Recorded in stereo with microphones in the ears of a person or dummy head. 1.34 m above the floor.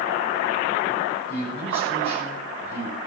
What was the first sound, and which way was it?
A man speaking, 35° right (ahead or behind).